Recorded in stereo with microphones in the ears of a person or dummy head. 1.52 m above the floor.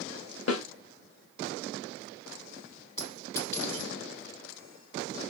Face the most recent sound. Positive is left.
turn(degrees=15)  # may be behind; listen again after turning